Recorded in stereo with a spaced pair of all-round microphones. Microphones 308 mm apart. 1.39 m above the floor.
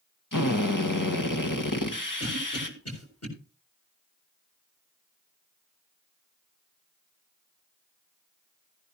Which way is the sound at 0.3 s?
85° left.